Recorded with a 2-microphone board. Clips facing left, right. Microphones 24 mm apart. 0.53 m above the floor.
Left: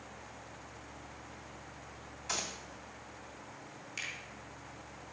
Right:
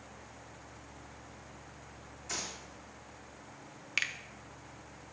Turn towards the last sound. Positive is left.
turn(degrees=-50)  # may be behind; listen again after turning